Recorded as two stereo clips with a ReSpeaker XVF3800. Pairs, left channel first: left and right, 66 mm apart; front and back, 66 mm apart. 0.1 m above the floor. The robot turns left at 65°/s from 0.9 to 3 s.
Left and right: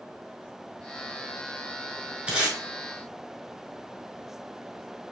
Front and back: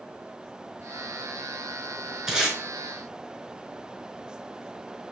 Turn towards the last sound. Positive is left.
turn(degrees=-160)